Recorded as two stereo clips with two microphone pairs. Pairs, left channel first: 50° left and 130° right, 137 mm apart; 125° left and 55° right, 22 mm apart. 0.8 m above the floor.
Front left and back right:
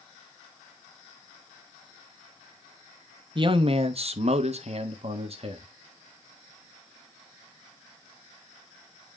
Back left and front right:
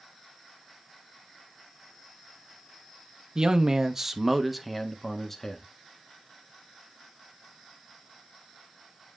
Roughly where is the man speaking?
Right.